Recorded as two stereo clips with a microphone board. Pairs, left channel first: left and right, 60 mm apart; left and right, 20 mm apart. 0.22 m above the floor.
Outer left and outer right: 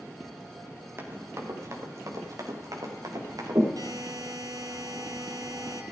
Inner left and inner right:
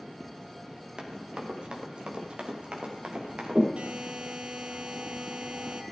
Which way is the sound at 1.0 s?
40° right (ahead or behind).